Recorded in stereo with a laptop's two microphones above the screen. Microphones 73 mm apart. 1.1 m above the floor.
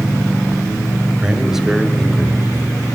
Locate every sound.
1.2 s a man speaking: 10° right (ahead or behind), 5 m; by 2.9 s 15° left (ahead or behind), 4.5 m